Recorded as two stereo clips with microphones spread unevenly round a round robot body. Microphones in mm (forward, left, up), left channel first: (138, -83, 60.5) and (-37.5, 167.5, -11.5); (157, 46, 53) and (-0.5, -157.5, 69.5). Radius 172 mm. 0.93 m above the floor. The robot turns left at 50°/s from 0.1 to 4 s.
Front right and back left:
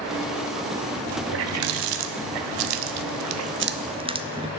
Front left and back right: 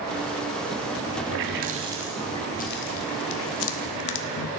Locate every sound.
1.3 s a running tap: 175° right, 0.8 m; by 4.5 s 50° left, 0.8 m